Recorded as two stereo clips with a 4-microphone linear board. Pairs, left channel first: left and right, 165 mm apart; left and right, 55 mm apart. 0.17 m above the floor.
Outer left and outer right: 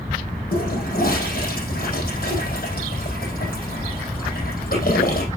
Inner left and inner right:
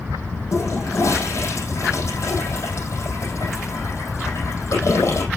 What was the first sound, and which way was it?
A toilet flushing, 65° left (ahead or behind).